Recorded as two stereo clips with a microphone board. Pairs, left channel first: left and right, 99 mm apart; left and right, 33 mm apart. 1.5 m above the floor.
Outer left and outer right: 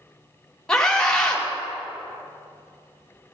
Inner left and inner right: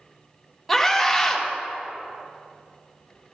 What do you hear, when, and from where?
0.7 s a scream: 5° left (ahead or behind), 2.5 m